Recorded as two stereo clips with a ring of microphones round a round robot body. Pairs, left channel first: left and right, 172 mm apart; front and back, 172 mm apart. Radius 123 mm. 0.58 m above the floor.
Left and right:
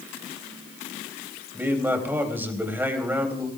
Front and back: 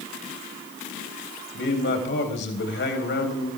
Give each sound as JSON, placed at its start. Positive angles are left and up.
{"t": 1.5, "sound": "a man speaking", "azimuth_deg": -10, "distance_m": 3.5}